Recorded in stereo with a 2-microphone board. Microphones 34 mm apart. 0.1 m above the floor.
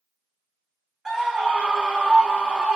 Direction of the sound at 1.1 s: 15° right (ahead or behind).